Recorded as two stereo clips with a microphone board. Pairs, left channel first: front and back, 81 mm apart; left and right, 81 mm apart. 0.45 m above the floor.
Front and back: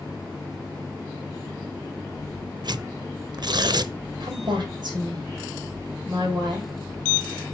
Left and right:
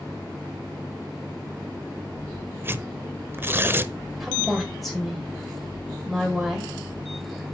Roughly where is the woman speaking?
Behind.